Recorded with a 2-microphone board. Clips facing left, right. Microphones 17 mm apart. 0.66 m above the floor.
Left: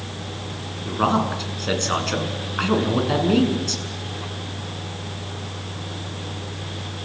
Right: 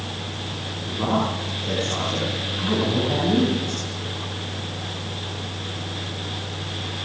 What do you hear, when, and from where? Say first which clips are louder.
0.8 s a man speaking: left 3 dB; 65° left (ahead or behind), 7.5 m